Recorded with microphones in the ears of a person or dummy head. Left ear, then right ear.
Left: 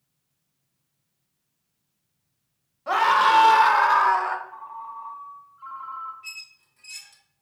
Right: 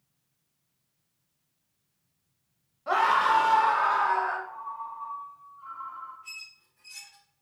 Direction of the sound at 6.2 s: 35° left (ahead or behind).